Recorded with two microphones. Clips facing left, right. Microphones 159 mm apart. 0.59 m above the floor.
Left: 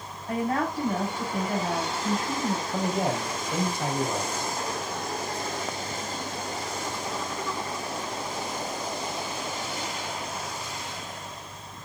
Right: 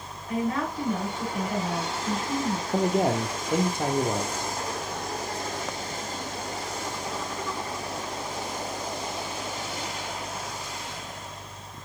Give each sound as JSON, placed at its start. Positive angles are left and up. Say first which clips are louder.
{"t": 0.3, "sound": "a woman speaking", "louder": "left 1 dB", "side_deg": 40, "distance_m": 3.5}
{"t": 2.7, "sound": "a man speaking", "louder": "right 7 dB", "side_deg": -45, "distance_m": 1.2}